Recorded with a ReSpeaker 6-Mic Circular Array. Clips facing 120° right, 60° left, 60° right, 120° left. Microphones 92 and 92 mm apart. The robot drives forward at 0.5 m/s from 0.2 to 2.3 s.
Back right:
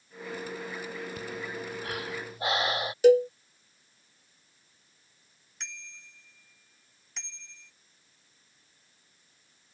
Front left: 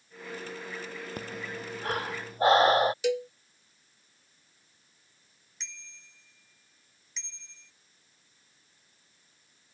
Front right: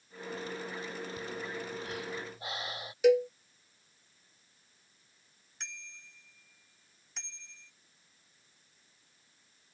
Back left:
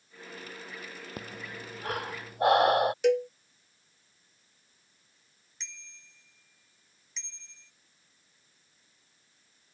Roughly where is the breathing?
Left.